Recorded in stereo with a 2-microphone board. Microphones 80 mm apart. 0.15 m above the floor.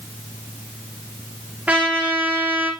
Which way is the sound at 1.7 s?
20° right (ahead or behind).